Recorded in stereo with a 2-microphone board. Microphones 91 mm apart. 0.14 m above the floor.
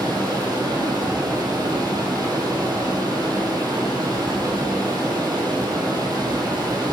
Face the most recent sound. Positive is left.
turn(degrees=-45)  # may be behind; listen again after turning